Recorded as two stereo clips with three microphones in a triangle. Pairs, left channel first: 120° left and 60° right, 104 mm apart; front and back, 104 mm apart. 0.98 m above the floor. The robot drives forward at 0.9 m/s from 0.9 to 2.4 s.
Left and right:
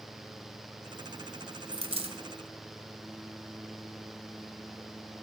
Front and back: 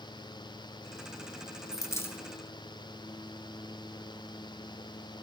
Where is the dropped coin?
55° right, 1.7 m; by 2.2 s 65° right, 1.5 m.